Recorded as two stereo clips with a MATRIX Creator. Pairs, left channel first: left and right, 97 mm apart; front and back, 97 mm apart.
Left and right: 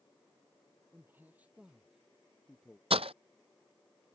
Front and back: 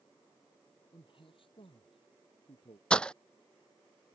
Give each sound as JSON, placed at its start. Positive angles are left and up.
{"t": 0.9, "sound": "a man speaking", "azimuth_deg": -25}
{"t": 2.9, "sound": "breaking glass", "azimuth_deg": -80}